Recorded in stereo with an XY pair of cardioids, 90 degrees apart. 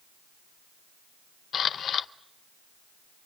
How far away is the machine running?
No machine running in this recording.